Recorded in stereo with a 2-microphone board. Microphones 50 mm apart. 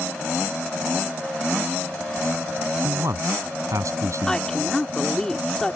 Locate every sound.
2.8 s a man speaking: 80° right
4.3 s a woman speaking: 10° left (ahead or behind)